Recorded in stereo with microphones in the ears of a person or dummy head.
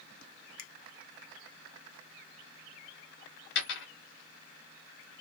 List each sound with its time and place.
0.6 s a finger snap: 60° left (ahead or behind), 1.0 m
3.5 s a dropped coin: 60° left (ahead or behind), 2.0 m